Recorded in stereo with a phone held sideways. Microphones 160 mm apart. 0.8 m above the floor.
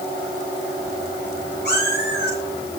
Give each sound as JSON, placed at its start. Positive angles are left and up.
{"t": 1.6, "sound": "a cat meowing", "side_deg": 85, "distance_m": 9.5}